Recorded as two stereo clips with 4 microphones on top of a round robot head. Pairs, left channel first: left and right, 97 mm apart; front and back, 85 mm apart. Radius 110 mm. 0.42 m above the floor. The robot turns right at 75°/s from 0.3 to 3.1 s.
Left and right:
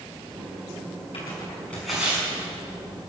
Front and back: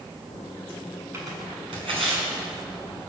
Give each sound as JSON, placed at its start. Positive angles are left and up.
{"t": 1.1, "sound": "tearing paper", "azimuth_deg": 125, "distance_m": 6.5}